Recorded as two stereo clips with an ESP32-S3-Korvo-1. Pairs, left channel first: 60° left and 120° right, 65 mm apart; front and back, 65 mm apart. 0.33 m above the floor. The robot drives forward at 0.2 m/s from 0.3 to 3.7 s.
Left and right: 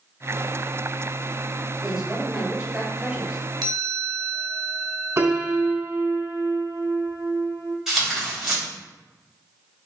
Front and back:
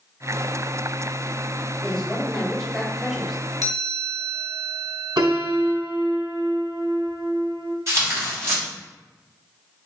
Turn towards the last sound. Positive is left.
turn(degrees=160)